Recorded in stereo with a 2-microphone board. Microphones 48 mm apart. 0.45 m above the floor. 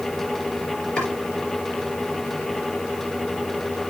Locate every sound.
1.0 s chopping: 25° left (ahead or behind), 5 m